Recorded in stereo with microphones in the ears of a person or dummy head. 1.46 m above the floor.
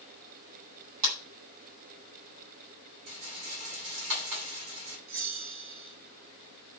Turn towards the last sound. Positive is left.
turn(degrees=-70)  # may be behind; listen again after turning